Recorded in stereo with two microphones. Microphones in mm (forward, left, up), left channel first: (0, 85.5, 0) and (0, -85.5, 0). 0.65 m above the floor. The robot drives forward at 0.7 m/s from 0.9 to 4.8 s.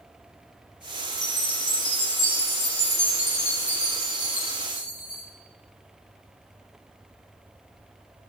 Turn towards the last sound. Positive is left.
turn(degrees=50)  # may be behind; listen again after turning